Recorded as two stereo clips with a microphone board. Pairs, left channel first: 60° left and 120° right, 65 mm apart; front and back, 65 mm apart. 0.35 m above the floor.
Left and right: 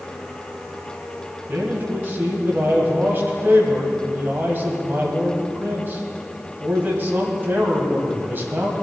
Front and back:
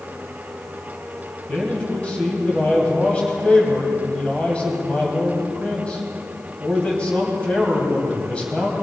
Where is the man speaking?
70° right, 2.5 m.